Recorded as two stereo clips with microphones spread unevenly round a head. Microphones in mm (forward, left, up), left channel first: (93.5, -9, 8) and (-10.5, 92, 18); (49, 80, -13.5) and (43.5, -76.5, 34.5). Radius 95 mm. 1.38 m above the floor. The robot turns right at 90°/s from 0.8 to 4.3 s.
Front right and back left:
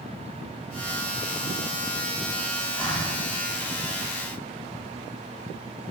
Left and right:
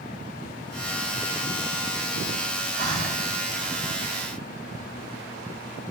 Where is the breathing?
135° right, 7.5 m; by 3.2 s 95° right, 7.5 m.